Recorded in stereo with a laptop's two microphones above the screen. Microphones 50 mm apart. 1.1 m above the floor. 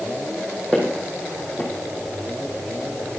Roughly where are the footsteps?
Centre.